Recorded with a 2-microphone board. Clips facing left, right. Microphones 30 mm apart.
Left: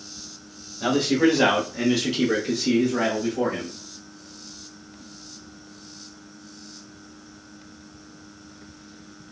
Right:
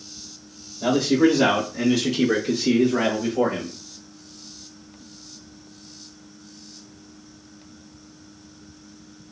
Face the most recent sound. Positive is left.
turn(degrees=-35)  # may be behind; listen again after turning